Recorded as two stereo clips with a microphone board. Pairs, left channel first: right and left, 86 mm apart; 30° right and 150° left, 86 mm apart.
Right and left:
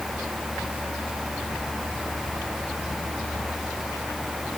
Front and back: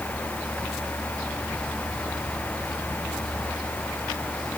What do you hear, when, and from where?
Only background noise.